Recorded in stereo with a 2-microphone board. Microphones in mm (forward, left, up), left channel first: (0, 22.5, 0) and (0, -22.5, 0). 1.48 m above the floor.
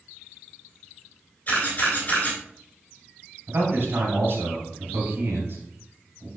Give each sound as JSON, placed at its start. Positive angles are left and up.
{"t": 1.5, "sound": "a camera shutter", "side_deg": 35, "distance_m": 4.0}
{"t": 3.5, "sound": "a man speaking", "side_deg": -50, "distance_m": 4.0}